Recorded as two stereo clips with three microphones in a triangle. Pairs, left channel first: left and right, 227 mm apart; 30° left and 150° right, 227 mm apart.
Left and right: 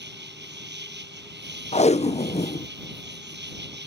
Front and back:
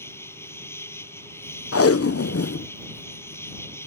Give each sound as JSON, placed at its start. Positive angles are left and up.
{"t": 0.0, "sound": "an insect", "azimuth_deg": -50}
{"t": 1.7, "sound": "tape being pulled", "azimuth_deg": 30}